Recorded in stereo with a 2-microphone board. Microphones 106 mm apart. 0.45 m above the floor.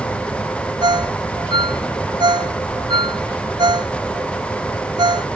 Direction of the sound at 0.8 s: 45° right (ahead or behind).